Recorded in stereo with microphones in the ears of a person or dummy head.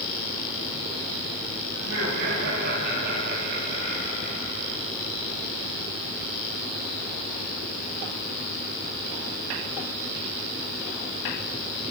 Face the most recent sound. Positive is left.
turn(degrees=-55)  # may be behind; listen again after turning